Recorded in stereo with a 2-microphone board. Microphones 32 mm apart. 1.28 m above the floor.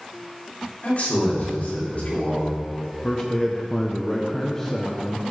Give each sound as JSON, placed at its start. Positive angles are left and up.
{"t": 0.8, "sound": "a man speaking", "side_deg": 50, "distance_m": 4.5}
{"t": 3.0, "sound": "a man speaking", "side_deg": 15, "distance_m": 0.9}